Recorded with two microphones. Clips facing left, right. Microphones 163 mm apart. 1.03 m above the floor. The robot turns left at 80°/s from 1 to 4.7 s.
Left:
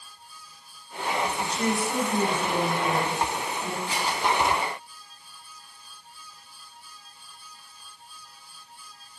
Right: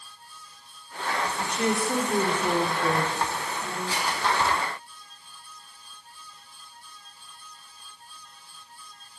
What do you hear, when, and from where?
1.4 s a woman speaking: 5° right, 3 m; by 3.8 s 165° left, 3 m
3.9 s scissors: 15° left (ahead or behind), 4.5 m; by 4.2 s 40° left (ahead or behind), 4.5 m